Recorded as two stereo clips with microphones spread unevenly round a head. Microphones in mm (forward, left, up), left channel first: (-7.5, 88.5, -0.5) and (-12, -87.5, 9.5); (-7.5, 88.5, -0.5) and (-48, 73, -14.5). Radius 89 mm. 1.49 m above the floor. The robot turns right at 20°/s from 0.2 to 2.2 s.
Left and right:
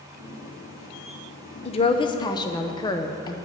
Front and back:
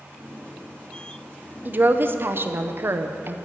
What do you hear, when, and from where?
1.6 s a woman speaking: 145° left, 0.7 m; by 3.4 s 155° left, 0.7 m